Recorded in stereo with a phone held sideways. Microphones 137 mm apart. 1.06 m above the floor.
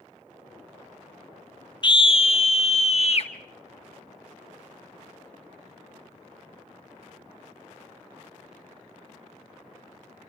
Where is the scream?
35° left (ahead or behind), 0.6 m; by 3.3 s 50° left (ahead or behind), 1.4 m.